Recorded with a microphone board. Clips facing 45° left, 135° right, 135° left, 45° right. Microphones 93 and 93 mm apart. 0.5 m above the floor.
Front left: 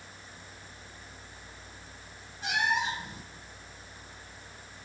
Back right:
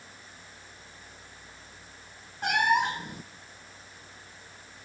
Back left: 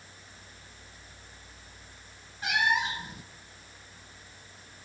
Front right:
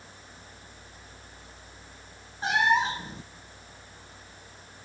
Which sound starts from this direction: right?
A cat meowing, at 2.4 s.